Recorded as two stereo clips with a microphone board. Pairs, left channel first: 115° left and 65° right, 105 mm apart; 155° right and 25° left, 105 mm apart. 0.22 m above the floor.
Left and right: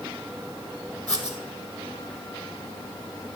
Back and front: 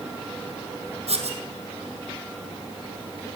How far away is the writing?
About 2 m.